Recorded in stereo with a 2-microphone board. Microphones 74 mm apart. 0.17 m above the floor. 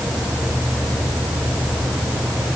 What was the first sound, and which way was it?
Only background noise.